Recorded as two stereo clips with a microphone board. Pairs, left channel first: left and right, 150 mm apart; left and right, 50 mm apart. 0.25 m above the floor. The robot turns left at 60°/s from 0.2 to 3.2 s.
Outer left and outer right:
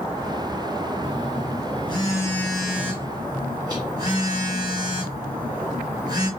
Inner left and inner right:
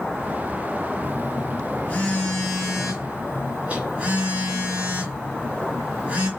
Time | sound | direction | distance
1.0 | a phone buzzing | 95° left | 1.5 m